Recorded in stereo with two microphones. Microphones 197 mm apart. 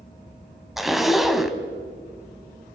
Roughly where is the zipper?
Centre.